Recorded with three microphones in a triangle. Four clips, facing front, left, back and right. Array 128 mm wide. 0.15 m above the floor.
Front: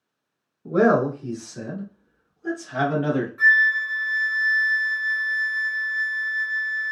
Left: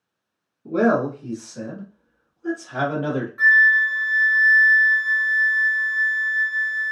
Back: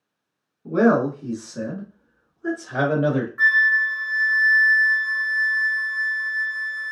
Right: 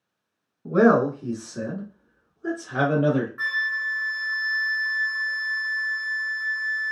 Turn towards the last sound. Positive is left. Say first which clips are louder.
# left 11 dB, even
turn(degrees=-170)